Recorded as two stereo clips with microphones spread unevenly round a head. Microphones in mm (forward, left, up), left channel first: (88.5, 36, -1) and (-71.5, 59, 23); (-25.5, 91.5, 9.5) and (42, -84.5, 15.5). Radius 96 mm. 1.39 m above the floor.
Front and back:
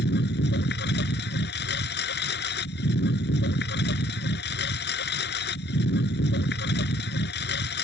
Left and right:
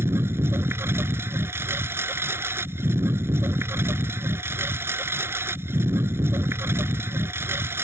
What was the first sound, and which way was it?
A lawn mower, 5° left.